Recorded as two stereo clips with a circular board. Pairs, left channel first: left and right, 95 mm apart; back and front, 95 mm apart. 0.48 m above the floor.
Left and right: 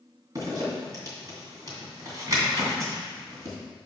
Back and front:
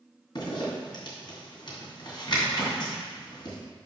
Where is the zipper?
140° right, 2.5 m.